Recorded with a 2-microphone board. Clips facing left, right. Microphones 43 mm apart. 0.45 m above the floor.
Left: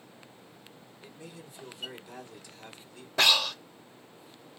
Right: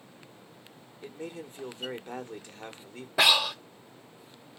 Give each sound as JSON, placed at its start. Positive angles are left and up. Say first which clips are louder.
{"t": 1.0, "sound": "a man speaking", "louder": "right 8 dB", "side_deg": -45, "distance_m": 1.2}
{"t": 3.2, "sound": "breathing", "louder": "right 1 dB", "side_deg": -10, "distance_m": 0.6}